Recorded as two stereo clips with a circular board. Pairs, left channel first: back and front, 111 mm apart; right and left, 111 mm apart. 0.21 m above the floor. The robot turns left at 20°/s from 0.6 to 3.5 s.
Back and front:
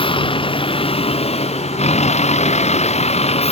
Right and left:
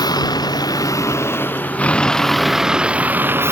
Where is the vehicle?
145° right; by 3.5 s 160° left.